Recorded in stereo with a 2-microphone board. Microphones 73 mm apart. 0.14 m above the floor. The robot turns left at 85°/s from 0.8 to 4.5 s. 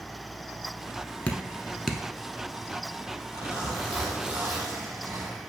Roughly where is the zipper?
Left.